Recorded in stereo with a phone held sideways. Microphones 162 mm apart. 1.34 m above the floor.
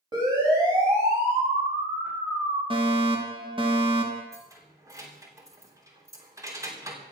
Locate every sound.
0.1 s a siren: 25° right (ahead or behind), 7.5 m; by 2.6 s 10° right (ahead or behind), 10 m
2.7 s a fire alarm: 30° right (ahead or behind), 3 m
4.3 s keys jangling: 20° right (ahead or behind), 3 m